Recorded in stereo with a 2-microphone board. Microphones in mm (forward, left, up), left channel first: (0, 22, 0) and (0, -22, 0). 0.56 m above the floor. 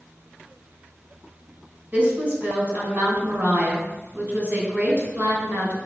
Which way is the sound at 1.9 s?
40° right (ahead or behind).